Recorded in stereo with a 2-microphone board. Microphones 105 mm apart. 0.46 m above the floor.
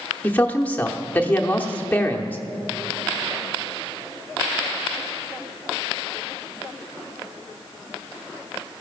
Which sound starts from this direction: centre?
A man speaking, at 0.2 s.